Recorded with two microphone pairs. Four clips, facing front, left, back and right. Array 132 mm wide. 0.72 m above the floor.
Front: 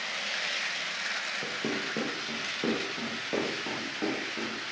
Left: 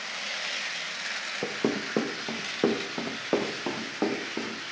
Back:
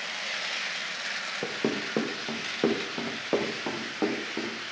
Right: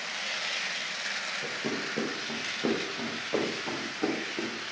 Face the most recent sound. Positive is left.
turn(degrees=125)